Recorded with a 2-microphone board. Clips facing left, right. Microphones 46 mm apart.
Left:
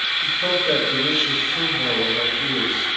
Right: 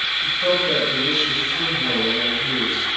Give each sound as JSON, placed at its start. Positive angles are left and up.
{"t": 0.2, "sound": "a man speaking", "side_deg": 30, "distance_m": 1.3}